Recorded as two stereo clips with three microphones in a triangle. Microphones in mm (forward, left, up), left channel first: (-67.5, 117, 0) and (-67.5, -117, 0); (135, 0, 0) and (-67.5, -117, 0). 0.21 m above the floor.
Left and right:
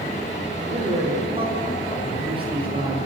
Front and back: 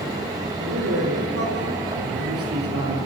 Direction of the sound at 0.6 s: 155° right.